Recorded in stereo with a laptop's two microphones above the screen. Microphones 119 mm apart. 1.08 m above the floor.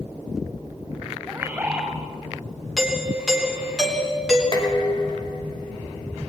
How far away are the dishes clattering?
About 3.5 m.